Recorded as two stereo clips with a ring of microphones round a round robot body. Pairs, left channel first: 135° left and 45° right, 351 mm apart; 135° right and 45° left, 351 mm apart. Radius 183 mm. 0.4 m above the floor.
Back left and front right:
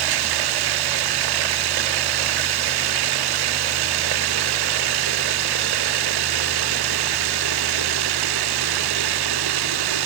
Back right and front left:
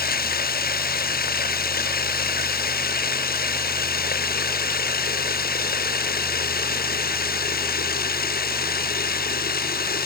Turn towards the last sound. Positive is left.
turn(degrees=-70)